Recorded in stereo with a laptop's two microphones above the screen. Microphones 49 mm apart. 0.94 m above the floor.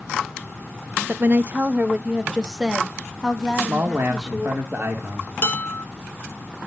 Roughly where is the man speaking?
Right.